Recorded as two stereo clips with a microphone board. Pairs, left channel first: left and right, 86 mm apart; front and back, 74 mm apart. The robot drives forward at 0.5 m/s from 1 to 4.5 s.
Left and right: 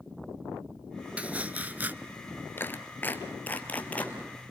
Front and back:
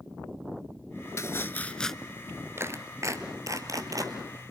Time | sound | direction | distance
1.2 | chopping | 25° right | 0.6 m
2.6 | a clap | 145° left | 1.3 m